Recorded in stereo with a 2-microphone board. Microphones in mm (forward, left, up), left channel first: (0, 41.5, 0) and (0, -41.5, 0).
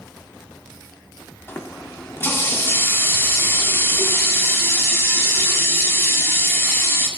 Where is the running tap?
30° left (ahead or behind), 2.0 m.